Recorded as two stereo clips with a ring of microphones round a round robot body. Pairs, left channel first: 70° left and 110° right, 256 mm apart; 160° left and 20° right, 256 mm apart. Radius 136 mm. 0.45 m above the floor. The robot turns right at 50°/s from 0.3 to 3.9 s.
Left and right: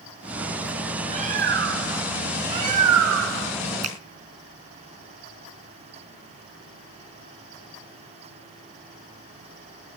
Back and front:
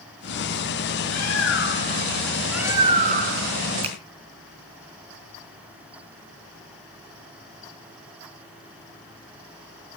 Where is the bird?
Straight behind, 2.5 m; by 3.5 s 60° right, 2.5 m.